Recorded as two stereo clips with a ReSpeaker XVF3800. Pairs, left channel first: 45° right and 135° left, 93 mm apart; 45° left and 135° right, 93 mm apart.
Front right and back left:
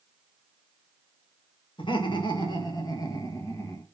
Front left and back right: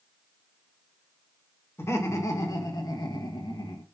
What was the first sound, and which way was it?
Laughter, 15° right.